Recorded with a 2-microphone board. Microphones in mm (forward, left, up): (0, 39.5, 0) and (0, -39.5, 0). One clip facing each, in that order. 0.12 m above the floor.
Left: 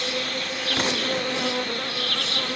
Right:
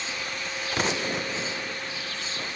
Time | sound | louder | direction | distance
0.0 | an insect | left 5 dB | 70° left (ahead or behind) | ?